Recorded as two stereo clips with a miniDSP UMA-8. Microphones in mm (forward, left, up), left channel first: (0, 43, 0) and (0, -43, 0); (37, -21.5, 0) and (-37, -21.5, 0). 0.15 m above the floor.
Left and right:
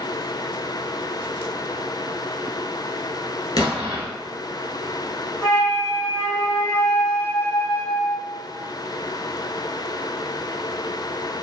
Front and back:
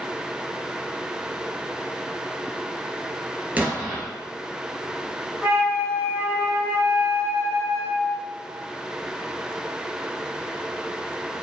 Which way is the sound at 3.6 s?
115° left.